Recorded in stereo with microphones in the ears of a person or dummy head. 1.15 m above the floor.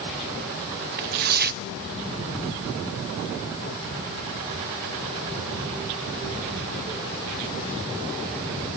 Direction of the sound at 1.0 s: 50° right (ahead or behind).